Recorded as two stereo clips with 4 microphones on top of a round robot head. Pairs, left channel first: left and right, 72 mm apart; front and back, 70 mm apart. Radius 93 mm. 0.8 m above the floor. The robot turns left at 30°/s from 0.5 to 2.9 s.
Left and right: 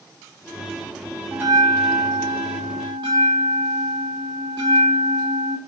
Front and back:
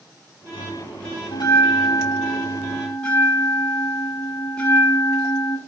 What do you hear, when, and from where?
1.3 s a bell: 30° right, 1.5 m; by 5.6 s 75° right, 1.5 m